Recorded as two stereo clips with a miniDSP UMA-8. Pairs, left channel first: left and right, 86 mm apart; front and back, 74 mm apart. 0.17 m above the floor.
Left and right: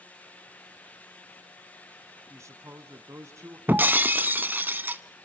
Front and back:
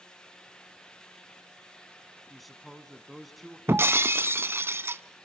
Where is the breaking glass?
145° right, 0.5 m.